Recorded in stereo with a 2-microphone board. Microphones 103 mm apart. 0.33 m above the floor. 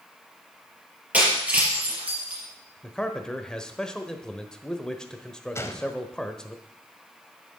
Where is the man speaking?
5° left (ahead or behind), 1.1 m.